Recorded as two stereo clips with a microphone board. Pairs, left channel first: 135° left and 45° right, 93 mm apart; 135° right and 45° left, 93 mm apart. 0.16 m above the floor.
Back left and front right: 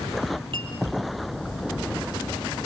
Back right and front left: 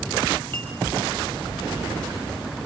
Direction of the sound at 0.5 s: 65° right.